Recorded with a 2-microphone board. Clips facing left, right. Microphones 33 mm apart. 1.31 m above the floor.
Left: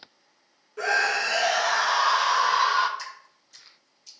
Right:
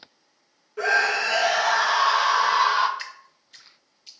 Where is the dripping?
35° right (ahead or behind), 0.6 m.